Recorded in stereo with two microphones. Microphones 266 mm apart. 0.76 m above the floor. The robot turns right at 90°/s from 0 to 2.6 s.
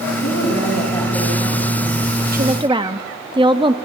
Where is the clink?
I don't hear a clink.